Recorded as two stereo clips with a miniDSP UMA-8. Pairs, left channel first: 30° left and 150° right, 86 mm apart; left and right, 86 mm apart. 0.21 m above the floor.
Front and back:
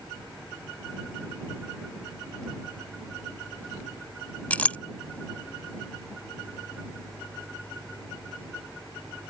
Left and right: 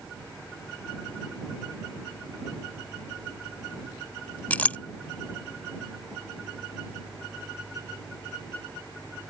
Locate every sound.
4.5 s a clink: 60° left